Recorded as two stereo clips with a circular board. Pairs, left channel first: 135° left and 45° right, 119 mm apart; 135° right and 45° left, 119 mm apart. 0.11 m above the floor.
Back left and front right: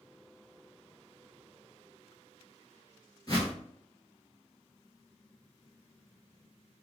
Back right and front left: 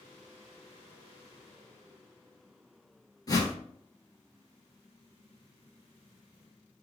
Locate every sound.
3.3 s a whoosh: straight behind, 1.4 m